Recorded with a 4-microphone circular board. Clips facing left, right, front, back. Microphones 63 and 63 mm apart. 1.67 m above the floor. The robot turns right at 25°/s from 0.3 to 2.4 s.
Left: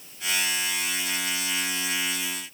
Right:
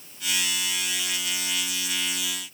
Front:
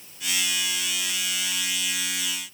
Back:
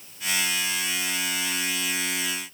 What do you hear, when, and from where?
Only background noise.